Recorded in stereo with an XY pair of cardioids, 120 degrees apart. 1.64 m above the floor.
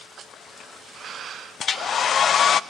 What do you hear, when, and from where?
1.6 s a hair dryer: 45° left, 0.6 m